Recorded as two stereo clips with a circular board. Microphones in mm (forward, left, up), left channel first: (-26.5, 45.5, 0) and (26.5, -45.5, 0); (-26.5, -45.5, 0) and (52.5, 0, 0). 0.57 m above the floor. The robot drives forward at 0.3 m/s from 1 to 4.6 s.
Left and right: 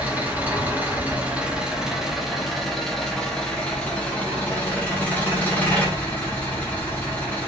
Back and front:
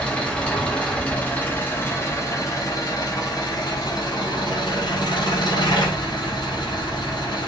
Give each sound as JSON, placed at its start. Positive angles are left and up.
{"t": 0.0, "sound": "an engine running", "azimuth_deg": -95, "distance_m": 0.9}